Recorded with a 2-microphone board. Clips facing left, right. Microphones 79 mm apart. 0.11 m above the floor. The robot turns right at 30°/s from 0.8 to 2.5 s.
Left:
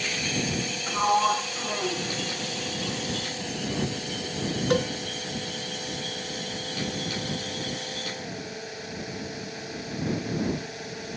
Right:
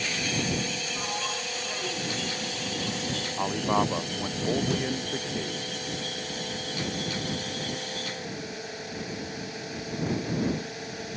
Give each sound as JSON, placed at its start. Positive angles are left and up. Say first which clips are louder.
{"t": 0.9, "sound": "a sliding door", "louder": "left 11 dB", "azimuth_deg": 125}
{"t": 3.4, "sound": "a man speaking", "louder": "right 9 dB", "side_deg": -70}
{"t": 4.7, "sound": "a cowbell", "louder": "left 4 dB", "side_deg": 60}